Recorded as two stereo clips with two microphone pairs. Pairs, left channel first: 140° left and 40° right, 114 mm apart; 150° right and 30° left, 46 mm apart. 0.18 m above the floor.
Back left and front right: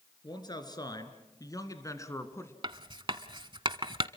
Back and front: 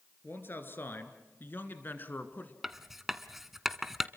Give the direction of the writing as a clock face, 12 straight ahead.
2 o'clock.